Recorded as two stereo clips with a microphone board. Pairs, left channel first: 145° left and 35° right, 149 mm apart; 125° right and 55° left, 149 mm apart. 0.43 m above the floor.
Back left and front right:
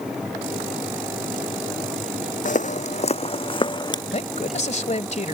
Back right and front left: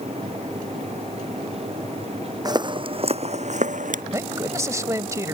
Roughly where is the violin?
I don't hear a violin.